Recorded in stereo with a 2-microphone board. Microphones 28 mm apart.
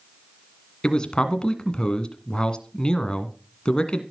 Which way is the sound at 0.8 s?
30° left (ahead or behind).